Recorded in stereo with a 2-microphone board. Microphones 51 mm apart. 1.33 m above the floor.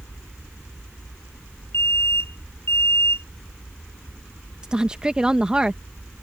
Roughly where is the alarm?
Left.